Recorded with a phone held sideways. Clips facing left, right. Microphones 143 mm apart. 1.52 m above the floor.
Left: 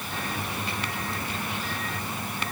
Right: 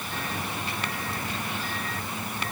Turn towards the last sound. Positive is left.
No sound to turn to.